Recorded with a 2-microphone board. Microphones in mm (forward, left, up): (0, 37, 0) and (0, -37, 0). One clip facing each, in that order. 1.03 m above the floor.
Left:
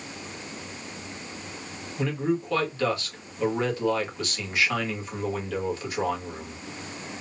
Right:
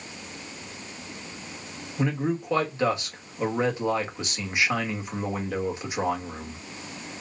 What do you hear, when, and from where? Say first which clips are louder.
2.0 s a man speaking: even; 20° right (ahead or behind), 1.8 m